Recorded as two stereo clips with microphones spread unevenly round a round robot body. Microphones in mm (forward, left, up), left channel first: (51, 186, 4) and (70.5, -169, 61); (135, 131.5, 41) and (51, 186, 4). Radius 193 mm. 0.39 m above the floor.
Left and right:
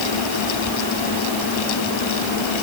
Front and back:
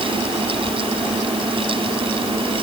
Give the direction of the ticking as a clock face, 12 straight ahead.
I don't hear ticking.